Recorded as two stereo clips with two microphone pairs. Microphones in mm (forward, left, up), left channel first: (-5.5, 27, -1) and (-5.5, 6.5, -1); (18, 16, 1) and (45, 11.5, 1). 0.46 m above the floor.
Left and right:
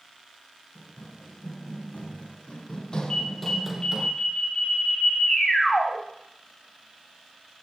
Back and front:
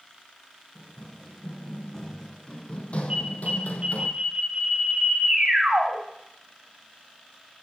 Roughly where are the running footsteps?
Left.